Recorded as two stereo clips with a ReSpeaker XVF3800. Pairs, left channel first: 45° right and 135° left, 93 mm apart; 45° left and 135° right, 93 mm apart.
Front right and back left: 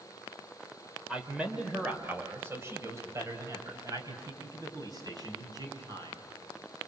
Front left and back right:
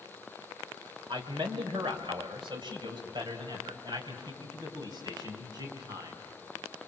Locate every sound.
1.1 s a man speaking: 145° right, 2.5 m; by 6.2 s straight behind, 5.5 m